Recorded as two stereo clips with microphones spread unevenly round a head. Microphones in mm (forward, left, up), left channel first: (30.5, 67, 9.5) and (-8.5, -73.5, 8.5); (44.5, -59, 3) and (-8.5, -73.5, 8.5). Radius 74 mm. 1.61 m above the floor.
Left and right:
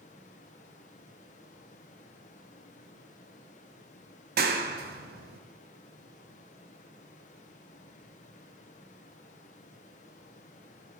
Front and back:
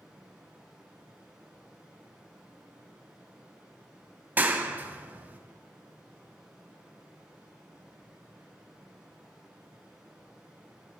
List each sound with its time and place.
0.0 s running water: 115° left, 1.0 m
4.4 s a clap: 115° right, 0.9 m